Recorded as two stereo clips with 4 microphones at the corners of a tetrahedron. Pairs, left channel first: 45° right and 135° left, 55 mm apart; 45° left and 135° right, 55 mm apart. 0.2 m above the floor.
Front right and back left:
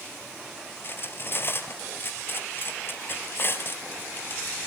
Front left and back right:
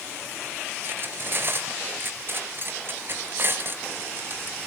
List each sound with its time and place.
0.8 s cutlery clinking: 90° right, 2.5 m